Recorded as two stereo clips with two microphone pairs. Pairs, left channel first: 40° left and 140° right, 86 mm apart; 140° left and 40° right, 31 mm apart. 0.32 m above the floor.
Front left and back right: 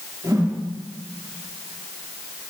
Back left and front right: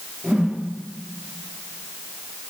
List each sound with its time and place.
0.2 s a whoosh: 95° right, 5 m